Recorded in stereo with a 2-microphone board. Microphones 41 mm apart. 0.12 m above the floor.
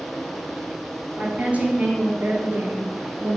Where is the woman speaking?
30° right (ahead or behind), 2 m; by 3.4 s 50° right (ahead or behind), 2.5 m.